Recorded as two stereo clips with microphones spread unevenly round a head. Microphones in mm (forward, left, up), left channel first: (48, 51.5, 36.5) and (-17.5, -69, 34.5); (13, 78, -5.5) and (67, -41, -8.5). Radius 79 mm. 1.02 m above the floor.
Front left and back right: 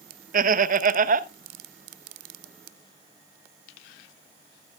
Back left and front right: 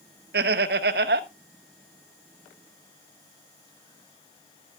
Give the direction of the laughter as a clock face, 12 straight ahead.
3 o'clock.